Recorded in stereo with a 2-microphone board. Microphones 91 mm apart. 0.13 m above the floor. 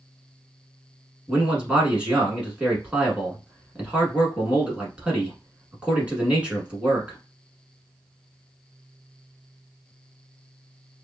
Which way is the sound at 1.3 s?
15° right (ahead or behind).